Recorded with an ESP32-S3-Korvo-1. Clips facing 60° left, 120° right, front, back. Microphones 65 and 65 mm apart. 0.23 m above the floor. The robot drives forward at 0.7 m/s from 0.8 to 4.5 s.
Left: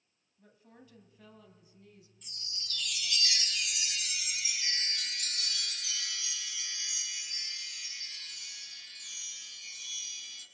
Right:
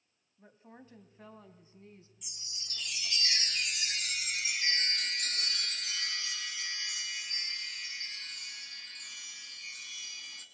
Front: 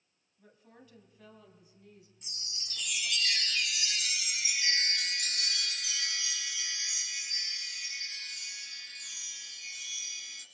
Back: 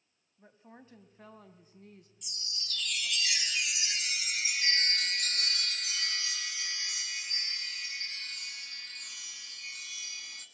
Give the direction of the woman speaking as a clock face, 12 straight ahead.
5 o'clock.